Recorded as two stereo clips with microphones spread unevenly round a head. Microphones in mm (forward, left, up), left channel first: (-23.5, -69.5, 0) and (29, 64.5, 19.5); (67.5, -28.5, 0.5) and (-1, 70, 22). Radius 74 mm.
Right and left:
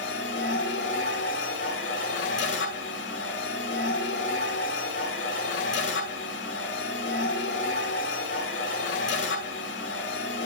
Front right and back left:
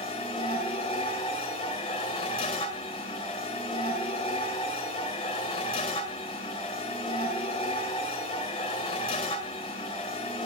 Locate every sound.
0.0 s a machine running: 115° right, 6 m